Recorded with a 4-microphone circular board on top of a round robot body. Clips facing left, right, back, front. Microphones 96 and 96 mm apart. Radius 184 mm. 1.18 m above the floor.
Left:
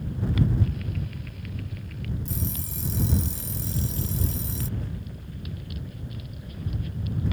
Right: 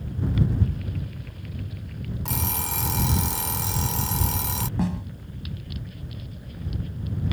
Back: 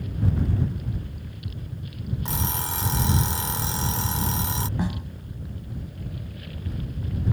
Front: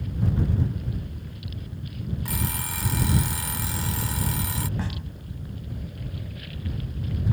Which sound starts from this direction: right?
A snare drum, at 4.8 s.